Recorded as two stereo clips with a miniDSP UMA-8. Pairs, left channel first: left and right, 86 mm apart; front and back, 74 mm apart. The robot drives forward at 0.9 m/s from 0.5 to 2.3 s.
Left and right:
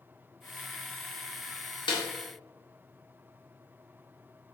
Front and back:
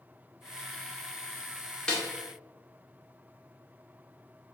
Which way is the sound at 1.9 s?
80° left.